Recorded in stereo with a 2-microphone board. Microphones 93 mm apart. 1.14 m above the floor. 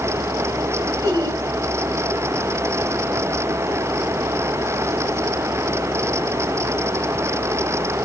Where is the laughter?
35° right (ahead or behind), 7 m.